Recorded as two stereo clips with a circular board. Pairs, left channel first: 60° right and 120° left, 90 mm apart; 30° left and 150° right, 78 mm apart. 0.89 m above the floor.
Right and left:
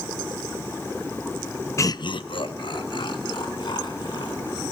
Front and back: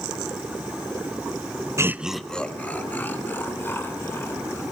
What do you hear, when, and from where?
1.8 s laughter: 110° right, 0.6 m; by 4.6 s 30° right, 4.5 m